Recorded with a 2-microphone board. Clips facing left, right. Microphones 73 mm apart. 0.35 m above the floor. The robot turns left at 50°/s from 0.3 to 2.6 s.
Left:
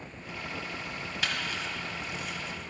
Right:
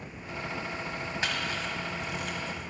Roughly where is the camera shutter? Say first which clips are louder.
Even; right.